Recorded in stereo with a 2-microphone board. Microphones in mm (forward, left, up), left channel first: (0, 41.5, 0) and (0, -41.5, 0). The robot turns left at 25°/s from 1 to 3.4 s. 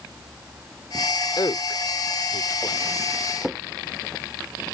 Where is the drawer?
5° right (ahead or behind).